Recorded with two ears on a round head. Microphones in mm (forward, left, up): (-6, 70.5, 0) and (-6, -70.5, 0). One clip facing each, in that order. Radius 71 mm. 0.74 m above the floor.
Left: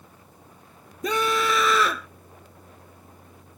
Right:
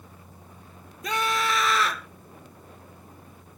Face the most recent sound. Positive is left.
turn(degrees=85)